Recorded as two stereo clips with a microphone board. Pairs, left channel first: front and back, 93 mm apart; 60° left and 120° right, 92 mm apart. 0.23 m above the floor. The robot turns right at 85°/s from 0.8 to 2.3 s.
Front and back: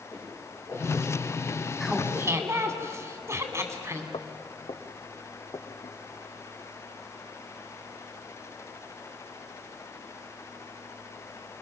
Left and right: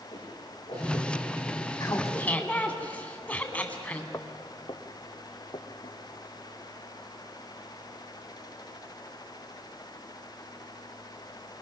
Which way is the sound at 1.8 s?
90° left.